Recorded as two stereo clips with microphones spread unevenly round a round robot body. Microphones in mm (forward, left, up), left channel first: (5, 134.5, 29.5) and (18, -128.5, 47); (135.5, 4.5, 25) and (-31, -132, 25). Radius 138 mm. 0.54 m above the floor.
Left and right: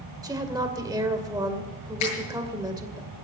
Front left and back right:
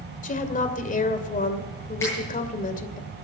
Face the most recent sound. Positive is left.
turn(degrees=120)